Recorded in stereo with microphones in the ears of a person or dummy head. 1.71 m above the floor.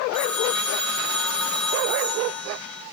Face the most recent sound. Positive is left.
turn(degrees=0)  # may be behind; listen again after turning